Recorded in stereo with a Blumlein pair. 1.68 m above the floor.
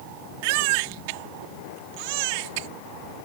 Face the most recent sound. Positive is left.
turn(degrees=-45)